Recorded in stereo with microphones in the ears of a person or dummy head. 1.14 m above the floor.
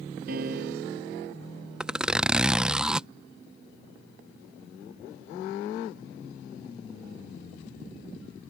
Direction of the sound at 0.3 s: 60° right (ahead or behind).